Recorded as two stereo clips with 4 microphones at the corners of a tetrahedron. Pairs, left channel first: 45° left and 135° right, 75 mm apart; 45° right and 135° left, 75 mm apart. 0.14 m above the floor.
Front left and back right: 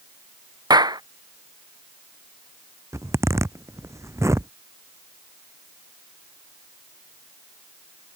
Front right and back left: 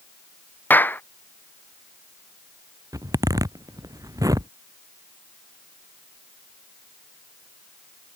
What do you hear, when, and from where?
0.7 s a clap: 110° right
2.9 s a zipper: 175° left